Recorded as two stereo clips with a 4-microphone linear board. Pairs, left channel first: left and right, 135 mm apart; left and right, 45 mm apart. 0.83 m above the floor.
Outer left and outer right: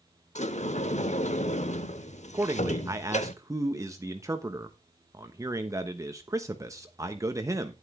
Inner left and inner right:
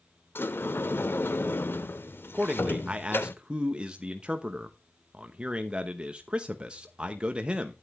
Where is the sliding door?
60° left (ahead or behind), 0.8 m.